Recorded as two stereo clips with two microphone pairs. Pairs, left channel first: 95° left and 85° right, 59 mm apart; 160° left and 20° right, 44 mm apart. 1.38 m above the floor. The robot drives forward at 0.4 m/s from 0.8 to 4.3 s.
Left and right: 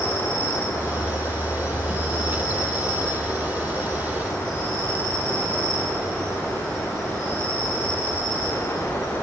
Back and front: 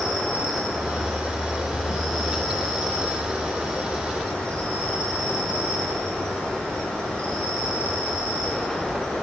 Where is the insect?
65° left, 4 m; by 9.2 s 90° left, 3.5 m.